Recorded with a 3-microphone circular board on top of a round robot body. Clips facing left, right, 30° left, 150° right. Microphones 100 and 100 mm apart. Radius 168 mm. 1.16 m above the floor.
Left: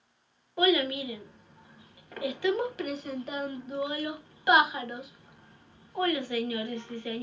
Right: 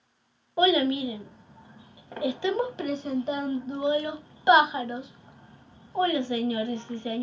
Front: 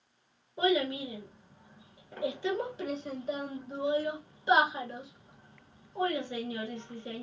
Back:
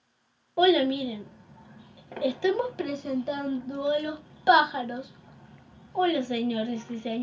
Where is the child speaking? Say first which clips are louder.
Right 3 dB, back 7 dB; 155° right, 0.8 m.